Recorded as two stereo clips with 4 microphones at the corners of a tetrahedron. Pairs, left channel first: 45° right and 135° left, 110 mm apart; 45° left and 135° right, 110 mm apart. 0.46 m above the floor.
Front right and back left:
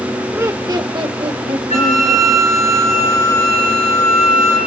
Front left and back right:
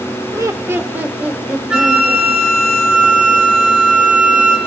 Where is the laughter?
170° right, 1.0 m; by 2.3 s 140° left, 2.5 m.